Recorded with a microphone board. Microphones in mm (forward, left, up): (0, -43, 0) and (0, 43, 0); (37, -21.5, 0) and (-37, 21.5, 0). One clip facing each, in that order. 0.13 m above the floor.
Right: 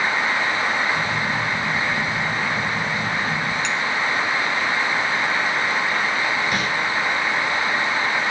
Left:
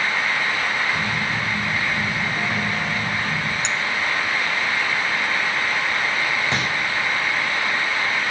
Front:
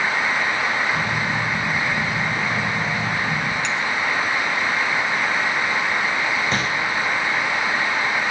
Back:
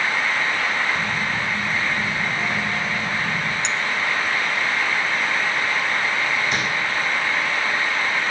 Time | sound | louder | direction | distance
0.9 | a phone buzzing | right 2 dB, front 2 dB | 15° left | 6.5 m
3.6 | a clink | right 1 dB, front 1 dB | 120° left | 0.9 m
6.5 | crumpling | right 1 dB, front 1 dB | 25° left | 6.5 m